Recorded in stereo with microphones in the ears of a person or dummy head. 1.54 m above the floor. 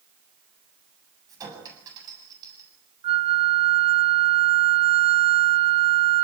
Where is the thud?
No thud in this recording.